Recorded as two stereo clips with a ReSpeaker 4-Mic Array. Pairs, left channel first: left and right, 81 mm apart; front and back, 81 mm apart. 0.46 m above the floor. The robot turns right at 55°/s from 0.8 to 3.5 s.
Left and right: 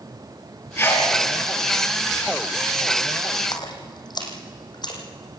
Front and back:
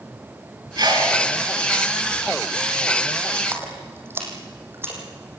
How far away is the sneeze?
About 5 m.